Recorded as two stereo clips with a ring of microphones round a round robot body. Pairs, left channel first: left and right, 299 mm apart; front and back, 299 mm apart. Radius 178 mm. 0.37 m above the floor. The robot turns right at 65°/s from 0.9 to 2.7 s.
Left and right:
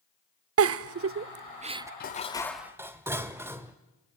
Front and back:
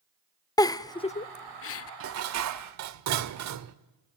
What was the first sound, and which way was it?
A giggle, 75° right.